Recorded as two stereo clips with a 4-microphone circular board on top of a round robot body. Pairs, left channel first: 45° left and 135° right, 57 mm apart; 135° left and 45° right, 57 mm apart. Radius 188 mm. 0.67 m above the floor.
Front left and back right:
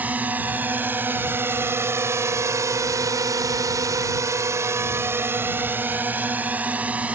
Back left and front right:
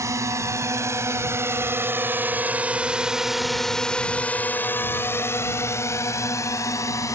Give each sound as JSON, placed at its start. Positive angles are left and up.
{"t": 0.0, "sound": "a drone", "azimuth_deg": -70}